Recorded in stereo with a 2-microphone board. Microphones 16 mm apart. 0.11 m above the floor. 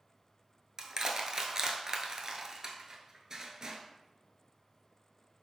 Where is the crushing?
40° right (ahead or behind), 0.6 m.